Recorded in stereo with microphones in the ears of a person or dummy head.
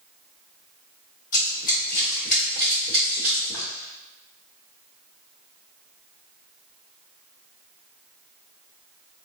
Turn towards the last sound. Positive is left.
turn(degrees=0)  # may be behind; listen again after turning